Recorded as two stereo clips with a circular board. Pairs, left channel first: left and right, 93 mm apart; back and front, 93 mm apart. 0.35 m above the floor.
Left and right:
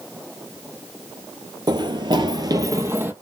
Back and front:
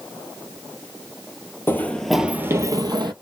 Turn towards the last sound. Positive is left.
turn(degrees=-25)